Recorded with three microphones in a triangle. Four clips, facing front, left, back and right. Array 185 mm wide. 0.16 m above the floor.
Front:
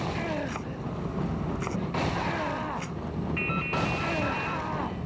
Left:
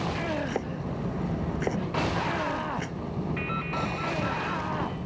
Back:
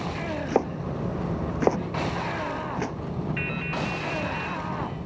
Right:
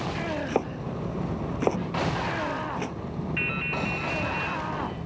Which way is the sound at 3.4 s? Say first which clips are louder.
Even, front 1 dB; 115° right.